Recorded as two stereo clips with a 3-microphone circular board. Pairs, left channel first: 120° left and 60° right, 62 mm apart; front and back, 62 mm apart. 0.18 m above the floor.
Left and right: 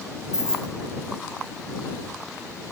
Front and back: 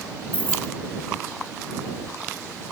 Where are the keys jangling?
Straight ahead.